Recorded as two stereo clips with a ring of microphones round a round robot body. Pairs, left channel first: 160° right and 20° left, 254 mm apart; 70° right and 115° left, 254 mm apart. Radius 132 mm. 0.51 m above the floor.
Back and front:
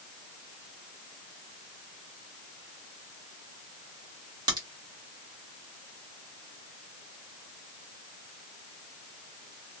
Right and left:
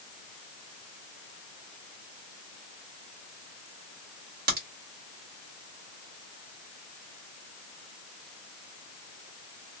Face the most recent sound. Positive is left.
turn(degrees=90)